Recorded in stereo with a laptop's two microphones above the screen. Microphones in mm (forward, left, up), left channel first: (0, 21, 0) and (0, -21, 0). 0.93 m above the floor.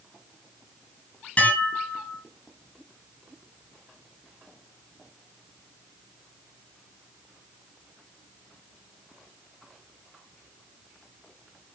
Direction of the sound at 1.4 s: 25° left (ahead or behind).